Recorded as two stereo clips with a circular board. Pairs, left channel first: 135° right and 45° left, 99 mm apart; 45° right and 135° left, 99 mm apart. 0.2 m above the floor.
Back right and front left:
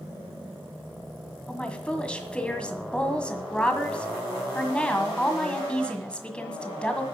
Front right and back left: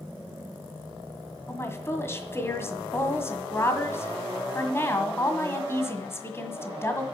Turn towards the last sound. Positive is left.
turn(degrees=-65)